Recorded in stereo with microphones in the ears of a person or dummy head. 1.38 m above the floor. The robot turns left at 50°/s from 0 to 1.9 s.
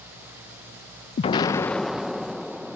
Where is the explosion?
40° left; by 2.8 s straight ahead.